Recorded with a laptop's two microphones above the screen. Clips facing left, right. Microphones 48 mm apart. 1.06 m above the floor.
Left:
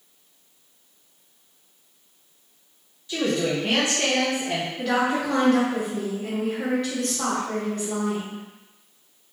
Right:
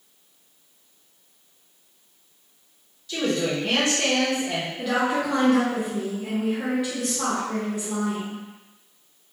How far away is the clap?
No clap in this recording.